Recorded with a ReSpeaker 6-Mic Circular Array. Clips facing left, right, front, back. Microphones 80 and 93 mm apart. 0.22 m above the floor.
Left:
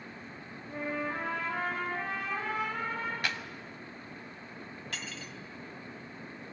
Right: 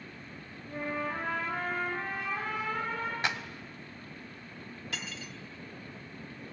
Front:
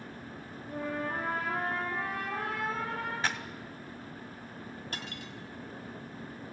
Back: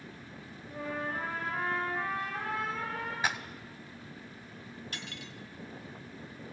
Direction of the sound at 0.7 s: 5° left.